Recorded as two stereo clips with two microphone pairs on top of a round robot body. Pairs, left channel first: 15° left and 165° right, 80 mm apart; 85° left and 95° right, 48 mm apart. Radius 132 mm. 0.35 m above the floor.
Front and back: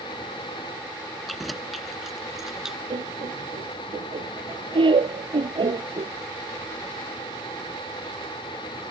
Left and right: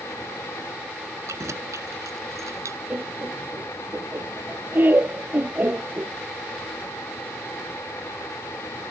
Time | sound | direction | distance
1.3 | keys jangling | 75° right | ?
2.9 | laughter | 145° right | ?